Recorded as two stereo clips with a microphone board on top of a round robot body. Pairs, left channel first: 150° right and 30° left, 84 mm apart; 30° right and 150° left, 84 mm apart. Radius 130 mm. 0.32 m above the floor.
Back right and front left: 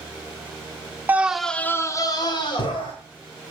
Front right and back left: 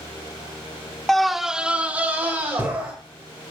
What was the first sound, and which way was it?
A scream, 50° left.